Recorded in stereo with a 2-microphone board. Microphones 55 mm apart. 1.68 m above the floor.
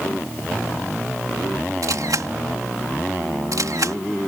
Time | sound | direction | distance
1.8 | a camera shutter | 85° right | ?